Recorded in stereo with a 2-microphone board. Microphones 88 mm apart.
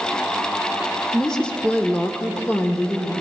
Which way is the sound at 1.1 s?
Centre (ahead or behind).